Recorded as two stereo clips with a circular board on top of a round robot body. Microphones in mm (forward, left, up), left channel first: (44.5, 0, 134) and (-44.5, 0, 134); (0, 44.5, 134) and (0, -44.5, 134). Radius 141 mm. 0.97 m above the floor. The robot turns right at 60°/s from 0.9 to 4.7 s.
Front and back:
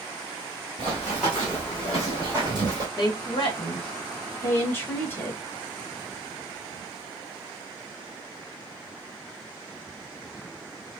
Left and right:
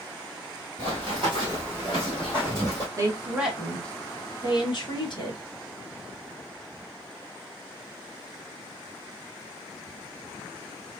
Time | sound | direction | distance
0.8 | running footsteps | 105° right | 1.1 m
3.0 | a woman speaking | 40° right | 1.3 m